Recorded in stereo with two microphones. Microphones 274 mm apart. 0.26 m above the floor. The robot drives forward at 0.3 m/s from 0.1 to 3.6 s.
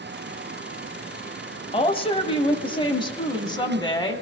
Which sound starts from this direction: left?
A woman speaking, at 1.7 s.